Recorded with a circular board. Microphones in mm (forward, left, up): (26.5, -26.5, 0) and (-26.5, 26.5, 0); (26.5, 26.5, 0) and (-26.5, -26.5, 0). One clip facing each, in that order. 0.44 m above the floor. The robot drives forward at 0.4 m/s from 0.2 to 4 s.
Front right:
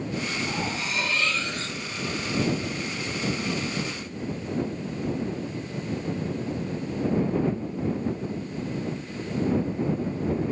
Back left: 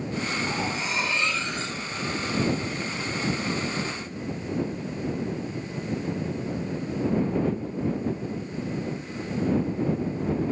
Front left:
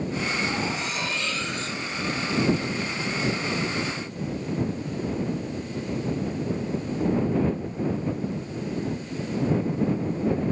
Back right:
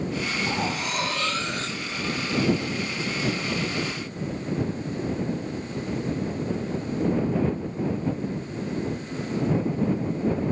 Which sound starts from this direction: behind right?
Cutlery clinking, at 0.5 s.